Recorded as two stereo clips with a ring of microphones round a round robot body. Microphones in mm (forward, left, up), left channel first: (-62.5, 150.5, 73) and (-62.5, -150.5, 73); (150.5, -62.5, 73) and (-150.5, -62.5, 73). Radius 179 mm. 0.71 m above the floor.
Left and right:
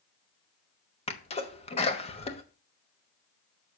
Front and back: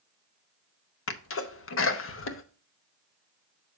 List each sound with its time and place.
1.1 s a sneeze: 25° left, 1.1 m